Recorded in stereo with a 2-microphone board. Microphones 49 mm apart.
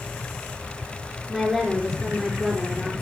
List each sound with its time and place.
1.3 s a woman speaking: 5° right (ahead or behind), 4 m